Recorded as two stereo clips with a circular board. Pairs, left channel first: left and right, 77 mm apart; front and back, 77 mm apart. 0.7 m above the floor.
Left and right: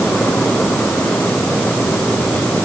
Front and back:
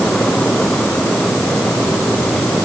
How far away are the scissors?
No scissors in this recording.